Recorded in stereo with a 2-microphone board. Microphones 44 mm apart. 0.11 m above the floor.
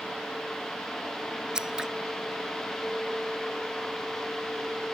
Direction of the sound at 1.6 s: 15° right (ahead or behind).